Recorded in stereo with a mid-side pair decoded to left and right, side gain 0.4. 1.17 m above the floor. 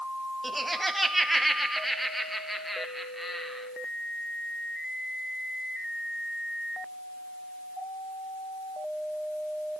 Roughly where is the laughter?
Ahead.